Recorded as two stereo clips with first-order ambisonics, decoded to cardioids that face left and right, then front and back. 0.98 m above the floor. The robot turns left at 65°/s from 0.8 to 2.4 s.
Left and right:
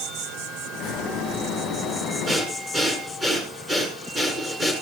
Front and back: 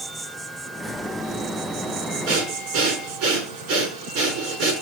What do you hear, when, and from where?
0.0 s an insect: 90° right, 1.9 m; by 4.8 s 170° left, 1.9 m
2.3 s breathing: 160° right, 5.5 m; by 4.7 s 170° right, 5.5 m